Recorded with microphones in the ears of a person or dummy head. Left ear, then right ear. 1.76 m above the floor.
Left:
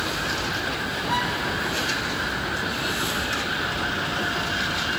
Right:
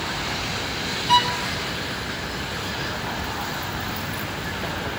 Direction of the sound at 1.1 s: 50° right (ahead or behind).